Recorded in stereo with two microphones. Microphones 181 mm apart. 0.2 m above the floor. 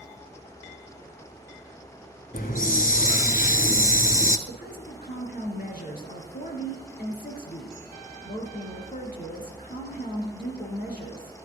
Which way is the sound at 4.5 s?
55° left (ahead or behind).